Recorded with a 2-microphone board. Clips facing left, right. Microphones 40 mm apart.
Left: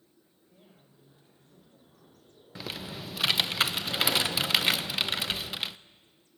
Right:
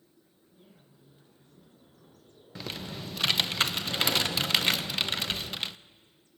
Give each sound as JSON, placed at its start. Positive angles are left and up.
{"t": 0.5, "sound": "a man speaking", "side_deg": 60, "distance_m": 7.0}
{"t": 2.5, "sound": "typing on a keyboard", "side_deg": 5, "distance_m": 0.6}